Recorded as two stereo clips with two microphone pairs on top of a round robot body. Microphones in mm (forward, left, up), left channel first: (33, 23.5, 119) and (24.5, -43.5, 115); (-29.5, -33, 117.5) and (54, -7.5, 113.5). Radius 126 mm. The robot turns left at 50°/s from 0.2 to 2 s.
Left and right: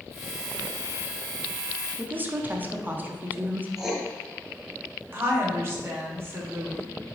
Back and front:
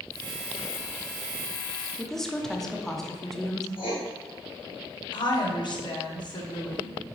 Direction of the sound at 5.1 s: 145° right.